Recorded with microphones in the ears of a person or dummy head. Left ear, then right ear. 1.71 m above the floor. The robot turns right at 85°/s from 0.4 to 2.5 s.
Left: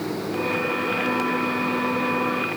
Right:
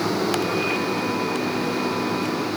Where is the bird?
No bird in this recording.